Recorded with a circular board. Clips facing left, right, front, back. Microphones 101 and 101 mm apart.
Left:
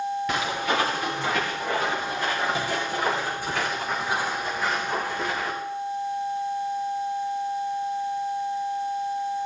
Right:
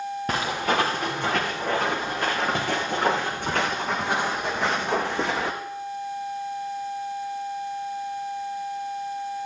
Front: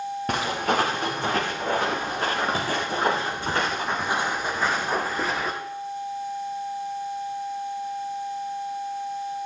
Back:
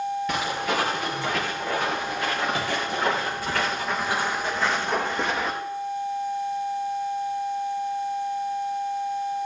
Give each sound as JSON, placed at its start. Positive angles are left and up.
{"t": 0.3, "sound": "footsteps", "azimuth_deg": -40, "distance_m": 4.5}